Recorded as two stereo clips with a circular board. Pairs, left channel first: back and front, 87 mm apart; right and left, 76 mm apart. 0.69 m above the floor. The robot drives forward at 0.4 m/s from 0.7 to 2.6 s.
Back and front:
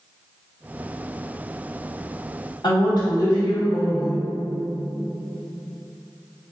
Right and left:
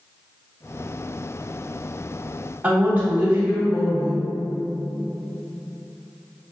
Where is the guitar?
I don't hear a guitar.